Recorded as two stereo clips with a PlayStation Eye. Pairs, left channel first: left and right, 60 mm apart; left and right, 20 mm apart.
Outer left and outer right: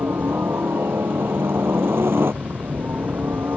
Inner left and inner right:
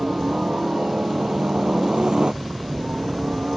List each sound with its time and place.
0.0 s a helicopter: 40° right (ahead or behind)